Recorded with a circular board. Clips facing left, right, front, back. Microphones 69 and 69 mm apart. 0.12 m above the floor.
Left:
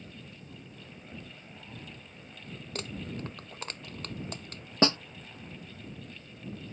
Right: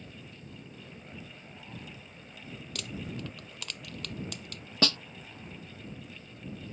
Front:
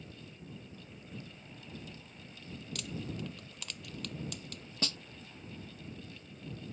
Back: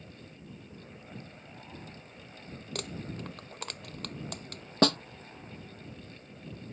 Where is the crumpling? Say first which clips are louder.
Left 1 dB, back 2 dB; 140° left.